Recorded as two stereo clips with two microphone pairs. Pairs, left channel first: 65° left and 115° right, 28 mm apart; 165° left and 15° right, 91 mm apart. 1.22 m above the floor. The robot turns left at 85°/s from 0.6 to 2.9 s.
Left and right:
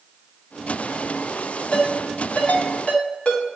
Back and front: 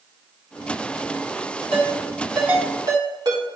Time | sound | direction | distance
1.7 | a ringtone | 125° left | 2 m